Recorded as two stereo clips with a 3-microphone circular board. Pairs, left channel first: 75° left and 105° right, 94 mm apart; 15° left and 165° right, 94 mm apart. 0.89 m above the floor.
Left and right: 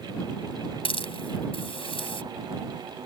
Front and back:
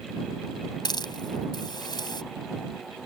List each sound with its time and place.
0.8 s a hiss: 60° left